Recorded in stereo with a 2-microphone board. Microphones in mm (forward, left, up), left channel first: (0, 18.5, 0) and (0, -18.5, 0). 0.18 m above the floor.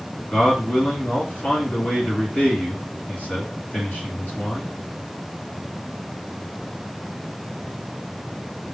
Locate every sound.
0.3 s a man speaking: 45° left (ahead or behind), 1.8 m